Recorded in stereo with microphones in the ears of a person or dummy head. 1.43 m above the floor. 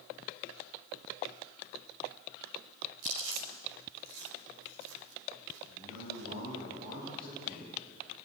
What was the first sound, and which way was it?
Chewing, 75° right (ahead or behind).